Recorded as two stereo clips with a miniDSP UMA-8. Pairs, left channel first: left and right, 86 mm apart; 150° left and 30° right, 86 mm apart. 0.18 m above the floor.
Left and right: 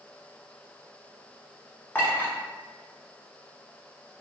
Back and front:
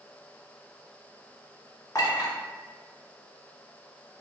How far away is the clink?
About 1.1 m.